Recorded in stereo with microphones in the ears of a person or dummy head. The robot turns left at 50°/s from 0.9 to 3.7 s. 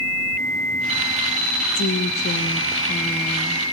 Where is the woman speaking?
80° left, 1.1 m; by 3.6 s 15° right, 1.1 m.